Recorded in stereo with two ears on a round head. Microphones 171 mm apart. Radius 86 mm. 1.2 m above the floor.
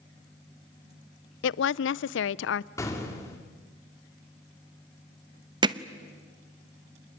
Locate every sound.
1.4 s a woman speaking: 70° left (ahead or behind), 0.5 m
2.8 s an explosion: 15° left (ahead or behind), 2.5 m
5.6 s hammering: 25° right (ahead or behind), 0.8 m